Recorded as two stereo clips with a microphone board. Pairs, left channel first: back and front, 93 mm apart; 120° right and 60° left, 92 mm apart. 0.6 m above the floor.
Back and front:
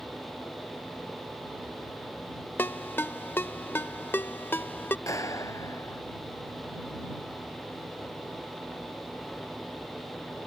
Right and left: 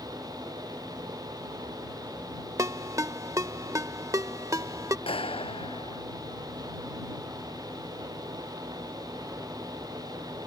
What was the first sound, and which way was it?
A ringtone, 115° left.